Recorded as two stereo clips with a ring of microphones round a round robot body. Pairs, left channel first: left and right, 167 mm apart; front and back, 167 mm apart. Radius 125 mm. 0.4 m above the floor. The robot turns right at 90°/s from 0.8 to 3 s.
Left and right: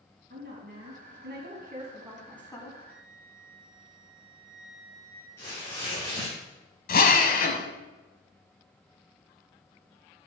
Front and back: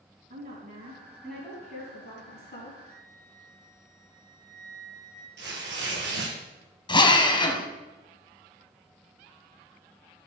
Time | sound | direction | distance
0.3 | a woman speaking | 135° right | 3.5 m
2.9 | a flute | 65° left | 5 m
5.4 | tearing paper | 170° left | 3.5 m
6.9 | a drill | 60° left | 1.6 m